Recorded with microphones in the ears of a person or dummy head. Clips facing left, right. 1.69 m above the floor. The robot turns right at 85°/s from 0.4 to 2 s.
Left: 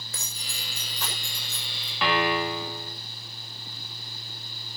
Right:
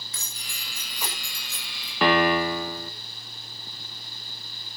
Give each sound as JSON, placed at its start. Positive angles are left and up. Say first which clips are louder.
{"t": 0.1, "sound": "keys jangling", "louder": "left 4 dB", "side_deg": 40, "distance_m": 6.0}
{"t": 2.0, "sound": "a piano", "louder": "right 5 dB", "side_deg": -45, "distance_m": 2.5}